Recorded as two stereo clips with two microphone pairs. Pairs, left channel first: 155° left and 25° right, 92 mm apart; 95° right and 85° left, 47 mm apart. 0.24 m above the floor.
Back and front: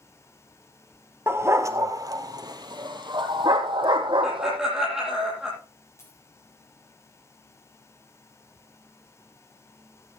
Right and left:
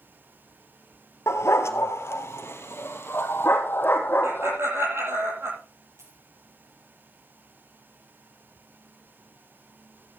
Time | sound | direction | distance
1.3 | a dog barking | 90° right | 1.3 m
4.2 | laughter | 55° left | 9.5 m
6.0 | a dropped coin | 95° left | 8.5 m